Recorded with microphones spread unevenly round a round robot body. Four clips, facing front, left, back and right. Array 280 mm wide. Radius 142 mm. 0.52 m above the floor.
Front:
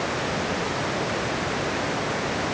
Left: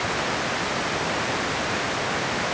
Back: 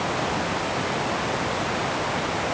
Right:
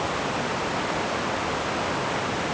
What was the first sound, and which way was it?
Only background noise.